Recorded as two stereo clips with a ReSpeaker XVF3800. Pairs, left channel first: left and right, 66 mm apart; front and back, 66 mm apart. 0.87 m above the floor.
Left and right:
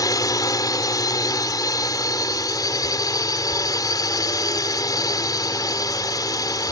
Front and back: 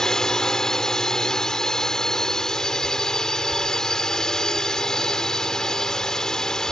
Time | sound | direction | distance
0.0 | a drone | 80° left | ?